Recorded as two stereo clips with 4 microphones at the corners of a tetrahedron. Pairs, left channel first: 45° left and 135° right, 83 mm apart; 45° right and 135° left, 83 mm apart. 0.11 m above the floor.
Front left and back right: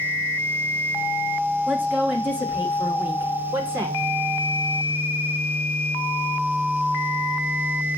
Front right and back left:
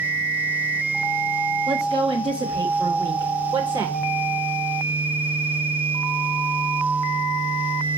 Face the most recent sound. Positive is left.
turn(degrees=165)